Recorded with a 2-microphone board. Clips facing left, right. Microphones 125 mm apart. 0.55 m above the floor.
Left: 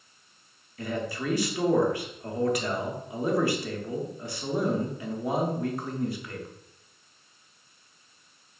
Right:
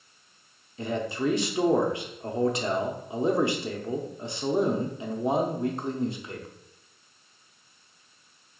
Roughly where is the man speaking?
Right.